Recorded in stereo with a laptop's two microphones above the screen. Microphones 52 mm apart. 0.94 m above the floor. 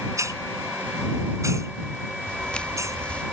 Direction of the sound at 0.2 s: 85° right.